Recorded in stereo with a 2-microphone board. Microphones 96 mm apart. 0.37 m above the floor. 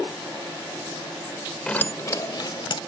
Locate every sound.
1.7 s keys jangling: 10° left (ahead or behind); by 2.8 s 55° left (ahead or behind)